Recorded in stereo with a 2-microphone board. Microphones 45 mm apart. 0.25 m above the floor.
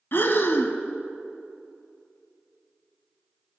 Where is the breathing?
60° left (ahead or behind), 0.7 m.